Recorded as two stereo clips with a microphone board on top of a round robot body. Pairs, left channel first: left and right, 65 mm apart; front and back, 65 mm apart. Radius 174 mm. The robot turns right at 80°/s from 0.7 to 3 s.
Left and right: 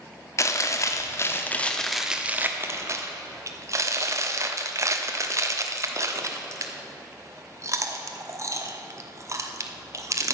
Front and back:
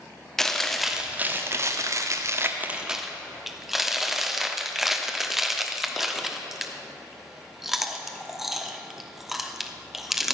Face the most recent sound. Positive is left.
turn(degrees=-95)